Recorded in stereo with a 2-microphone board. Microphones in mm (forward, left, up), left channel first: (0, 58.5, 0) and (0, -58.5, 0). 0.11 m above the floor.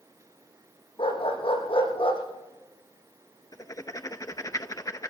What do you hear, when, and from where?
1.0 s a dog barking: 50° left (ahead or behind), 9 m
3.5 s writing: 30° left (ahead or behind), 0.6 m